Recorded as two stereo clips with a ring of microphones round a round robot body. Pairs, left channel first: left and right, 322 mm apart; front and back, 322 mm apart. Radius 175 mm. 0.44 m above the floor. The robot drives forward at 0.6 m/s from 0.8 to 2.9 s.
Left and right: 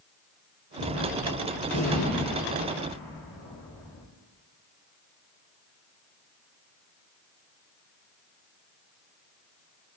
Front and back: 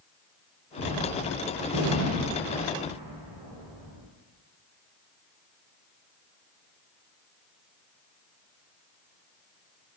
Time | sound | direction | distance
0.8 | a gunshot | 140° left | 7 m